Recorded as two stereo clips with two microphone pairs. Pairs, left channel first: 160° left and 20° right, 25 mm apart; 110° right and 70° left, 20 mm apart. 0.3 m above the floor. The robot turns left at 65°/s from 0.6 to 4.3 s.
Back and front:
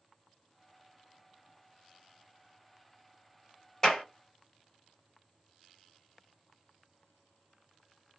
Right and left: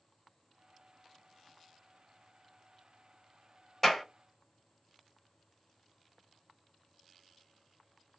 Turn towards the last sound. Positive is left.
turn(degrees=170)